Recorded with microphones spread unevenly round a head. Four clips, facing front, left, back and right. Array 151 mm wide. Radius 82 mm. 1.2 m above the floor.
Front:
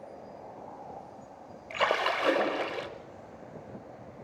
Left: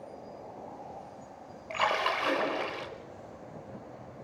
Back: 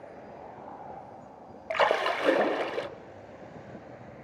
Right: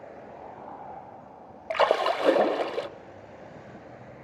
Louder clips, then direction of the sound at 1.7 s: Right 6 dB, back 3 dB; 100° right.